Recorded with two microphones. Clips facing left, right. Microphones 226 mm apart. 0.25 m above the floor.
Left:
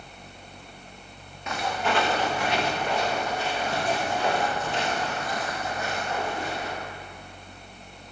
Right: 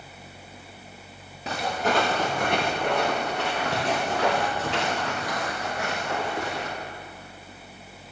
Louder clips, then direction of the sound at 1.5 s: Right 2 dB; 35° right (ahead or behind).